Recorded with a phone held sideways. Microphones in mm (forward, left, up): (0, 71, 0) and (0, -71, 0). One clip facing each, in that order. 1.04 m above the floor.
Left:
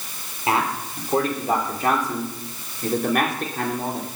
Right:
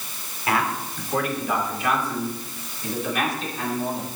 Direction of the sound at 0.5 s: 25° left (ahead or behind).